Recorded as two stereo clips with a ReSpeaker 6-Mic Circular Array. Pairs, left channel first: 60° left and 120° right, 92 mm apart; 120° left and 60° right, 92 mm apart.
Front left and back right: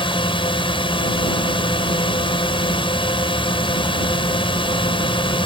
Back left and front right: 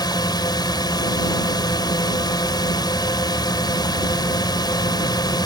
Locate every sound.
0.0 s a drone: 80° left